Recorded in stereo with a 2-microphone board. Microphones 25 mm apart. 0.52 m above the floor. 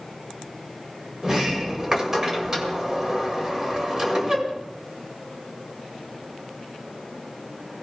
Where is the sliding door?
25° right (ahead or behind), 1.9 m.